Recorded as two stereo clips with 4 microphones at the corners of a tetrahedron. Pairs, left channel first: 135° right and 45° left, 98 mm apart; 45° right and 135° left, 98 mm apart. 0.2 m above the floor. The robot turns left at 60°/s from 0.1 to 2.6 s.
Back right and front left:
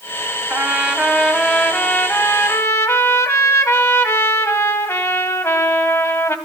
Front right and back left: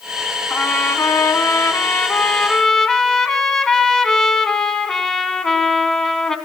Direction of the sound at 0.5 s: Straight ahead.